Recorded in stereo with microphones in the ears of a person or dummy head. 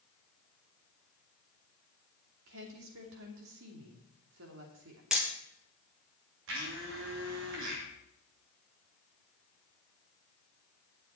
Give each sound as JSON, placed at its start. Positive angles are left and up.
{"t": 2.5, "sound": "a woman speaking", "side_deg": -70, "distance_m": 2.5}
{"t": 5.1, "sound": "hammering", "side_deg": 0, "distance_m": 1.0}
{"t": 6.5, "sound": "a blender", "side_deg": -60, "distance_m": 3.0}